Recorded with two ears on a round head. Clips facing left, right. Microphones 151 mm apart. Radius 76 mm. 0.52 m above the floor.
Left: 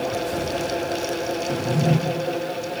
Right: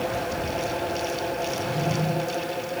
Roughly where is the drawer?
Left.